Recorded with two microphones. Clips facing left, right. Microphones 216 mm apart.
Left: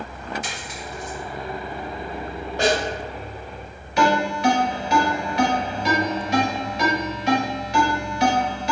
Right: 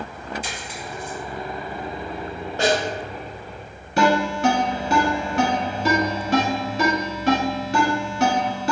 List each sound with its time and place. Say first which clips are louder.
0.4 s a dropped coin: right 1 dB; 70° left (ahead or behind), 1.0 m
2.6 s a snare drum: even; 15° left (ahead or behind), 1.5 m
4.0 s a ringtone: right 1 dB; 45° right (ahead or behind), 1.3 m